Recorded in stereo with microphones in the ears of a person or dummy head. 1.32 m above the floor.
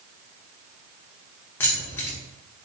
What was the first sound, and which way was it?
Keys jangling, 15° left (ahead or behind).